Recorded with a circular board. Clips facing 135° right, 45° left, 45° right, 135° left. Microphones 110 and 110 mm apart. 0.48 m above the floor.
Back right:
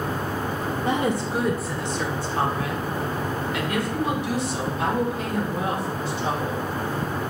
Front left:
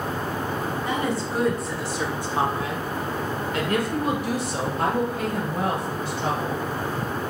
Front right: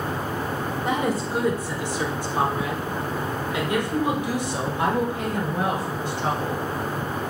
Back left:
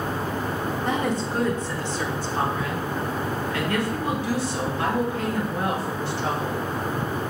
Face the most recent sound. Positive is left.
turn(degrees=30)